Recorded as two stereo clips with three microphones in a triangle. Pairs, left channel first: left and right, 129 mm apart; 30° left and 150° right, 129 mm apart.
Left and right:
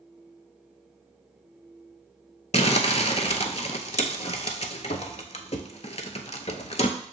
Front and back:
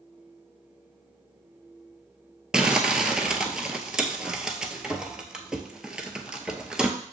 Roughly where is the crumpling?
Behind left.